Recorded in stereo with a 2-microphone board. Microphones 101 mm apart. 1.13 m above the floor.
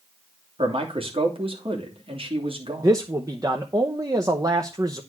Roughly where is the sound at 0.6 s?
Right.